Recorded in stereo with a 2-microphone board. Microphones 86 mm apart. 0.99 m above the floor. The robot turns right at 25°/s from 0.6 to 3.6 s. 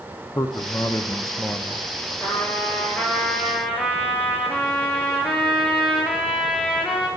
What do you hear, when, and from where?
0.3 s a man speaking: 110° left, 0.5 m; by 1.9 s 140° left, 0.5 m
2.2 s a trumpet: 150° left, 2.5 m; by 7.1 s 175° right, 2.5 m